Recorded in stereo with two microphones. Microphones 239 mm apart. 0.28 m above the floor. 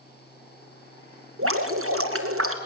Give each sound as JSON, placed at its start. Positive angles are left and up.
{"t": 1.4, "sound": "dripping", "side_deg": -70, "distance_m": 2.5}